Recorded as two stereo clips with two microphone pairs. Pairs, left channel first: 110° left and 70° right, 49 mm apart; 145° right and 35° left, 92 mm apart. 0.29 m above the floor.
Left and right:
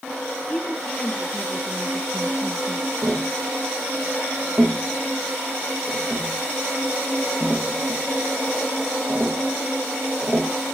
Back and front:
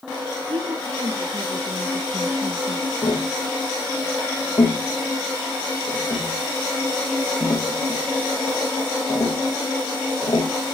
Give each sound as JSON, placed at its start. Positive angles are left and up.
{"t": 0.5, "sound": "a woman speaking", "azimuth_deg": 35, "distance_m": 6.0}
{"t": 3.0, "sound": "tapping", "azimuth_deg": -125, "distance_m": 7.5}